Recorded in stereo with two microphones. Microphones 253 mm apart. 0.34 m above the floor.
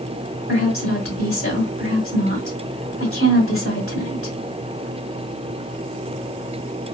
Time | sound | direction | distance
0.5 | a woman speaking | 60° left (ahead or behind) | 1.9 m